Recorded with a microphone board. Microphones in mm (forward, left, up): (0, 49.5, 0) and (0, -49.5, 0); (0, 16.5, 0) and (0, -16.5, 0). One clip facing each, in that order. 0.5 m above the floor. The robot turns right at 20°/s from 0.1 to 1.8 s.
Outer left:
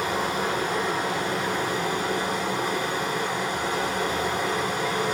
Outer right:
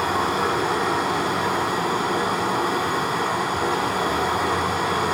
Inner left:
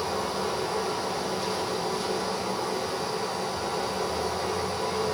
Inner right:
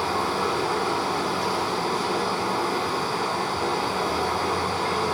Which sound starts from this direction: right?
Running water, at 0.0 s.